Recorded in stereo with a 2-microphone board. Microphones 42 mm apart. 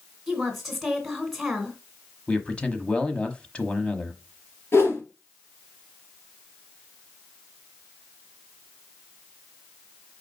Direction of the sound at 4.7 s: 70° left (ahead or behind).